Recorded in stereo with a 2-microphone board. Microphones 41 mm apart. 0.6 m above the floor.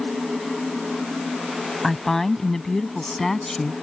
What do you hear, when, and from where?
1.8 s a woman speaking: 10° left (ahead or behind)